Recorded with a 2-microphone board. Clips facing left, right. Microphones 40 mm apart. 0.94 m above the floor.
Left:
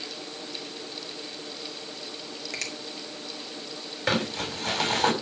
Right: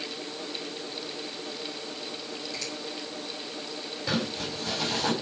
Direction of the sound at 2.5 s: 75° left (ahead or behind).